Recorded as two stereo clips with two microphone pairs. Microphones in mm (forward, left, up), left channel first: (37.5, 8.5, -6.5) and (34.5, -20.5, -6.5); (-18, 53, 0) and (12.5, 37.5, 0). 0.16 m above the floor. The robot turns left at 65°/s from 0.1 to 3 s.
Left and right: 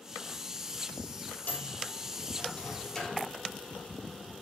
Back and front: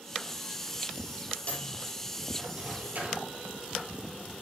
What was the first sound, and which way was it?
A microwave, 110° left.